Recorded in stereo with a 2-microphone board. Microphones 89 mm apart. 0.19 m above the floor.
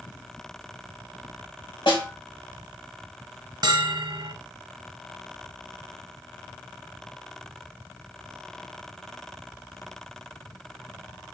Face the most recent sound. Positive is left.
turn(degrees=-50)  # may be behind; listen again after turning